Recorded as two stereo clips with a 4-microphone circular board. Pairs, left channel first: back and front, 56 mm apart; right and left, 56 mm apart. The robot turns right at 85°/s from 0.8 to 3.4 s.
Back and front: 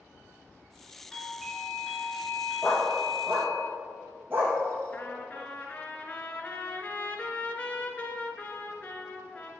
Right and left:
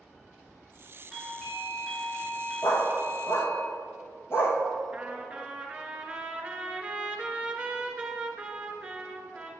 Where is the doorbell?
125° left, 1.6 m; by 3.6 s 40° right, 1.6 m.